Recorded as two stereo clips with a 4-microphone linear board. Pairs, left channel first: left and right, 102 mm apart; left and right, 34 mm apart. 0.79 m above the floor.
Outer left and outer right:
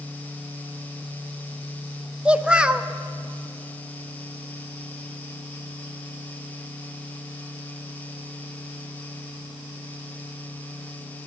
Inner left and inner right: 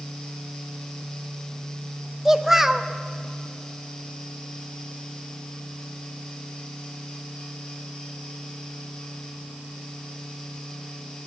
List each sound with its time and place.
2.2 s a child speaking: 10° right (ahead or behind), 0.6 m